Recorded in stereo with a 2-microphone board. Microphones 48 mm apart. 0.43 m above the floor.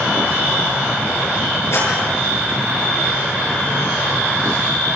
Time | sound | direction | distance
1.7 | a clap | 65° left (ahead or behind) | 9 m